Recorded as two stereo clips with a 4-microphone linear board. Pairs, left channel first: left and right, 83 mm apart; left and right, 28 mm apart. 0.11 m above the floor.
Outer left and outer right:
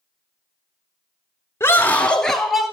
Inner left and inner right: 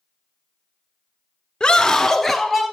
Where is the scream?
30° left (ahead or behind), 1.4 m; by 2.6 s centre (ahead or behind), 1.7 m.